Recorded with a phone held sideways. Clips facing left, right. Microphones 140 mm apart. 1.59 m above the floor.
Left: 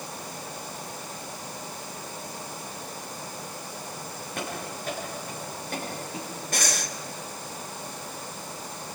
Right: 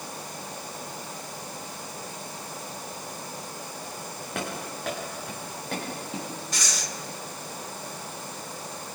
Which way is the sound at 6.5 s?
55° left (ahead or behind).